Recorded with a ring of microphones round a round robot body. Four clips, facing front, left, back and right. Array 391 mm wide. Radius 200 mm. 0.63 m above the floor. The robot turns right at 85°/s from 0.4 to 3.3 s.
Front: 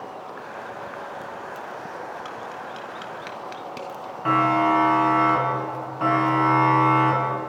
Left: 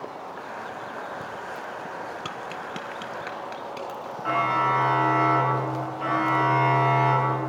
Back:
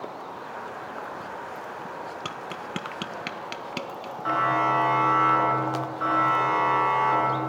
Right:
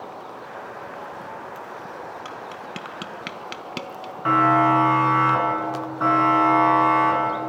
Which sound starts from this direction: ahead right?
A siren, at 4.2 s.